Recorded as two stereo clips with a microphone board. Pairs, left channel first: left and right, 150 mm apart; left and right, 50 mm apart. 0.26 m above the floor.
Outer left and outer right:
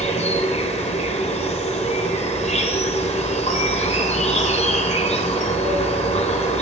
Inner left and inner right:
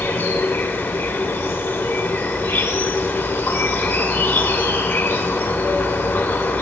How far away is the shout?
I don't hear a shout.